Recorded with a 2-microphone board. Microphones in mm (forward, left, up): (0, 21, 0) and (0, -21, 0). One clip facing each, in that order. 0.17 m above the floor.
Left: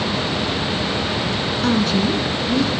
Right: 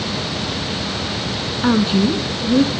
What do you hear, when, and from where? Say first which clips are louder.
1.6 s a woman speaking: right 3 dB; 15° right (ahead or behind), 1.6 m; by 2.7 s 30° right (ahead or behind), 2.0 m